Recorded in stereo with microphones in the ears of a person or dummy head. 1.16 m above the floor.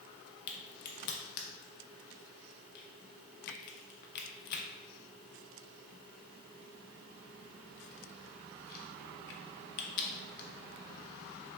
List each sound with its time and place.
0.5 s a crack: 55° left (ahead or behind), 0.5 m